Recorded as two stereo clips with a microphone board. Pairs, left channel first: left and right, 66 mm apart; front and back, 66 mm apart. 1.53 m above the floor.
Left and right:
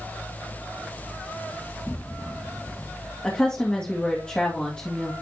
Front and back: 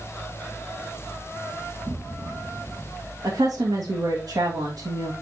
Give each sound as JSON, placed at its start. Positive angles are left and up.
{"t": 1.8, "sound": "an explosion", "azimuth_deg": 170, "distance_m": 1.5}
{"t": 3.2, "sound": "a woman speaking", "azimuth_deg": 165, "distance_m": 1.7}